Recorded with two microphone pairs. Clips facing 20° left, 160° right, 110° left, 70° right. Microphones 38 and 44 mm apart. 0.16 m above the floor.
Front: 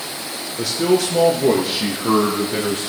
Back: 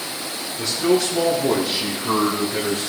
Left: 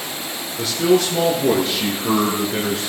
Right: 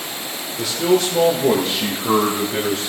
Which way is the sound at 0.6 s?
35° left.